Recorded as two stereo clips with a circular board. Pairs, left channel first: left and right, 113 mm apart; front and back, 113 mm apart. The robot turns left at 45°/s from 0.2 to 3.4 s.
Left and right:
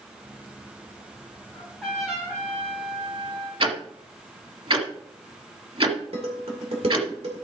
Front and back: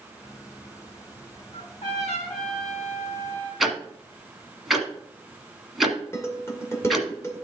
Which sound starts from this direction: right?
Ticking, at 3.6 s.